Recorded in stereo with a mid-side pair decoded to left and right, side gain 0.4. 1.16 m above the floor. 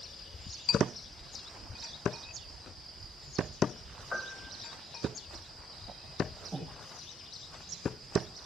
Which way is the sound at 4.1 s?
30° left.